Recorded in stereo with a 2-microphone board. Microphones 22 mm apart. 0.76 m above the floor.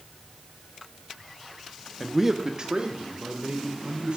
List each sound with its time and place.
2.0 s a man speaking: 10° left (ahead or behind), 0.5 m; by 4.2 s 60° right (ahead or behind), 2.5 m